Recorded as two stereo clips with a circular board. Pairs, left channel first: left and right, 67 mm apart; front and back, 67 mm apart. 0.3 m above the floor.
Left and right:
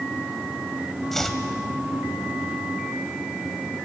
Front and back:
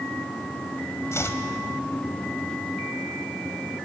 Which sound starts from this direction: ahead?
Chopping, at 1.1 s.